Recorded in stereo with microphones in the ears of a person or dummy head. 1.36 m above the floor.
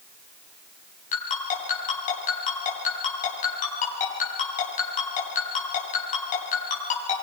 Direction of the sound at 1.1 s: 40° left (ahead or behind).